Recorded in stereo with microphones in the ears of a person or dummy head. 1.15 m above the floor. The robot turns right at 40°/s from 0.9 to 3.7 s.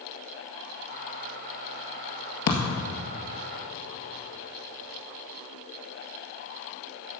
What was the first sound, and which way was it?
A thud, 60° left (ahead or behind).